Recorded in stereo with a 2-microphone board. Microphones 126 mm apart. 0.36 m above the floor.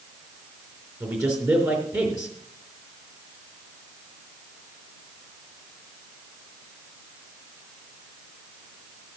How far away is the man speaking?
About 3.5 m.